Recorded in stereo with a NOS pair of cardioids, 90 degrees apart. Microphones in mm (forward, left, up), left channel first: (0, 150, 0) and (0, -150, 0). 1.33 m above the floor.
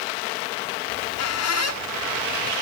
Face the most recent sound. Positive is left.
turn(degrees=70)